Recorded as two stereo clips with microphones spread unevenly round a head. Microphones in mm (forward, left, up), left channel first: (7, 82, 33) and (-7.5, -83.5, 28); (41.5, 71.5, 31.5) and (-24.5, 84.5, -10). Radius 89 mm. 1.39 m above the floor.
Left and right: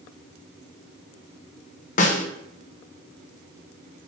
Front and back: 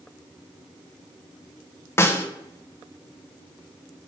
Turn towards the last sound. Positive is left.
turn(degrees=35)